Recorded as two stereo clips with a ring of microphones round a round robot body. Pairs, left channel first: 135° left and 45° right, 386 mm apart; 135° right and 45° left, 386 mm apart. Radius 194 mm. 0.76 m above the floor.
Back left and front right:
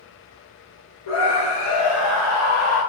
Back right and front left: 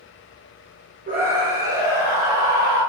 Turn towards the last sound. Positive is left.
turn(degrees=110)